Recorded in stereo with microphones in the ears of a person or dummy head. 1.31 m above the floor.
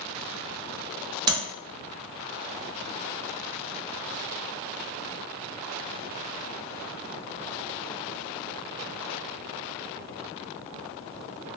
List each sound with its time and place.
1.3 s tapping: 30° right (ahead or behind), 0.8 m